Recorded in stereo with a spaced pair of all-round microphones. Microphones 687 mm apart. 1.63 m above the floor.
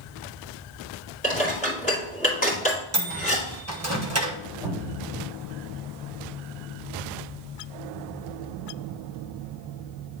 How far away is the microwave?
About 1.1 m.